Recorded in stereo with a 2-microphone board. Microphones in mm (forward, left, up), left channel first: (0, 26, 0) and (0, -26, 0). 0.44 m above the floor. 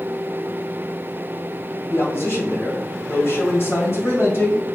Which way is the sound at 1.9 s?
50° left (ahead or behind).